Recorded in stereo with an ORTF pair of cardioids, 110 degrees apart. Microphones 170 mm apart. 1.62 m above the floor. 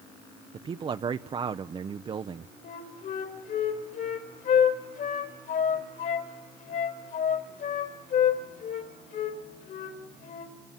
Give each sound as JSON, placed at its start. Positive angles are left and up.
{"t": 0.5, "sound": "a man speaking", "azimuth_deg": -30, "distance_m": 0.8}
{"t": 2.6, "sound": "a flute", "azimuth_deg": 60, "distance_m": 4.0}